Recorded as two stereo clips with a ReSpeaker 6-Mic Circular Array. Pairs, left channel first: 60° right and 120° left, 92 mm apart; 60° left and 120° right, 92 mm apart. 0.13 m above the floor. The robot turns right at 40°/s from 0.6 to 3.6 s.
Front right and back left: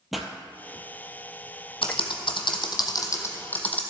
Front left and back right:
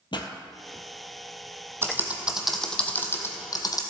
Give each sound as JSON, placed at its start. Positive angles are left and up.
{"t": 0.1, "sound": "a pop", "azimuth_deg": 30, "distance_m": 0.9}
{"t": 1.8, "sound": "typing on a keyboard", "azimuth_deg": -60, "distance_m": 1.1}